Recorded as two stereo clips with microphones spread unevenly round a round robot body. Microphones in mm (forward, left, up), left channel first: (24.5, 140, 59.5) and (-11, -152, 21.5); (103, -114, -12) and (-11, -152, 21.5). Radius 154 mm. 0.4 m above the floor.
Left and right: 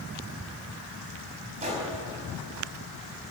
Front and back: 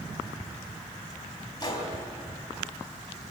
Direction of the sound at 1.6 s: 30° right.